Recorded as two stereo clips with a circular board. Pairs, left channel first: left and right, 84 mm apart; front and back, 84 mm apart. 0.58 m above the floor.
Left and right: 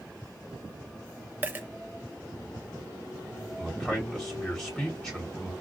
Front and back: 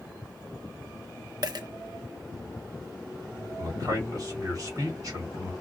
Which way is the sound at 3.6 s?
175° left.